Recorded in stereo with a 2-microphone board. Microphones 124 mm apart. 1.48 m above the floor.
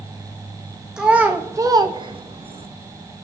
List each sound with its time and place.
1.0 s a child speaking: 10° right (ahead or behind), 1.1 m; by 2.7 s 55° right (ahead or behind), 1.0 m